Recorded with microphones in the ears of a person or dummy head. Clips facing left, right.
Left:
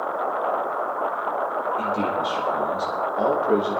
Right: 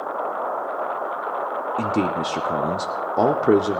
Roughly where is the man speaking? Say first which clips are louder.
Right 5 dB; right.